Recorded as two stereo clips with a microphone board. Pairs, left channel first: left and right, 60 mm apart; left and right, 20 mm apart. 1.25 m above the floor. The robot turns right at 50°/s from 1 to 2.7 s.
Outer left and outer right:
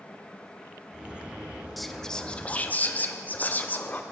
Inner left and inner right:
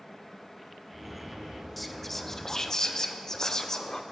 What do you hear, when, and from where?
1.8 s whispering: straight ahead, 0.6 m; by 4.0 s 45° left, 0.6 m